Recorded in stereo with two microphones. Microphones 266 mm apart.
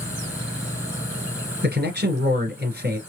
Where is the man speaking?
40° right (ahead or behind), 1.6 m.